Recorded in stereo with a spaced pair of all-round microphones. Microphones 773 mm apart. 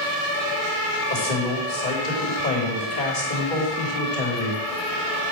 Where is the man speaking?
75° left (ahead or behind), 3.5 m.